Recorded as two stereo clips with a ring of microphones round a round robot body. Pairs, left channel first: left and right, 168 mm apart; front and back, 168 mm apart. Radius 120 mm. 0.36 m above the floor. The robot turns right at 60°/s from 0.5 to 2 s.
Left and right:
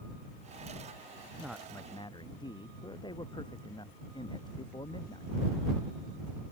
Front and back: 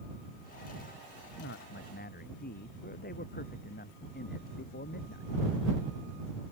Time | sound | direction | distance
1.4 | a man speaking | 10° right | ?